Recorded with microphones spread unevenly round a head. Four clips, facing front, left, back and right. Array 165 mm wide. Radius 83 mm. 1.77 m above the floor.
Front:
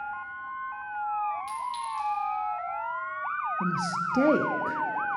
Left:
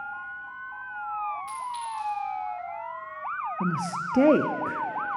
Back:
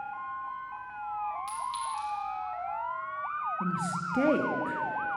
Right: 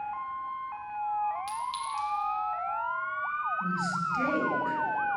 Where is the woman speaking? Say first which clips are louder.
Left 2 dB, front 3 dB; 75° left, 0.6 m.